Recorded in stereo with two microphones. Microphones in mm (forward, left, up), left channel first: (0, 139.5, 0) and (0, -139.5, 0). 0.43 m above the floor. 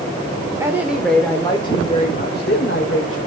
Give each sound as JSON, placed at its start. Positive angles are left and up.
{"t": 0.6, "sound": "a woman speaking", "side_deg": -10, "distance_m": 1.2}